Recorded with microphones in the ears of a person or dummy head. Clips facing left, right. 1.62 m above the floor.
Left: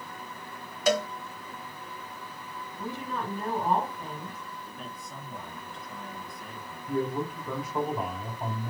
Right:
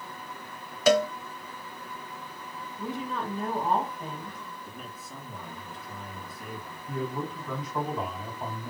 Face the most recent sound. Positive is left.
turn(degrees=10)  # may be behind; listen again after turning